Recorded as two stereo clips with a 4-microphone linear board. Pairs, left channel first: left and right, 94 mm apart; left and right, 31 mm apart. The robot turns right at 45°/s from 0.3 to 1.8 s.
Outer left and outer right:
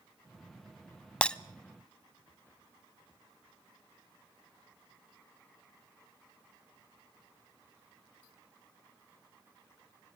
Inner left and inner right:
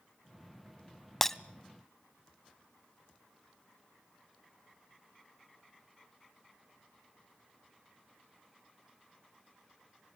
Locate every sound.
1.2 s breaking glass: 15° left (ahead or behind), 0.5 m; by 1.4 s 10° left (ahead or behind), 0.5 m